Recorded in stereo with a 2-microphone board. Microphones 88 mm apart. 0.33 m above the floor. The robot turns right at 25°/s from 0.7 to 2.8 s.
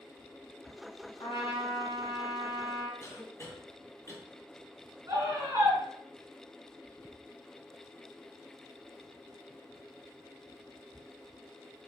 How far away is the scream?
About 2.0 m.